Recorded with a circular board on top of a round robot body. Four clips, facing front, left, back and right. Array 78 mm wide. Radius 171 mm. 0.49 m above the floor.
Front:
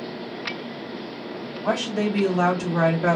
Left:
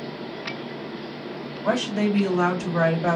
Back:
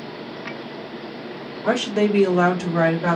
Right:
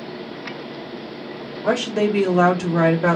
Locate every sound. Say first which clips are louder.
1.6 s a woman speaking: right 3 dB, back 4 dB; 140° right, 1.4 m; by 3.2 s 90° right, 1.2 m